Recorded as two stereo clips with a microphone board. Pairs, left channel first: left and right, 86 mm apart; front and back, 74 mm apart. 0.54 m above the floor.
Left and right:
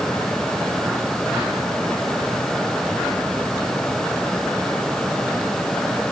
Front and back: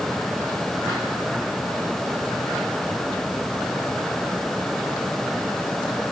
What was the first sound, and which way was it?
Only background noise.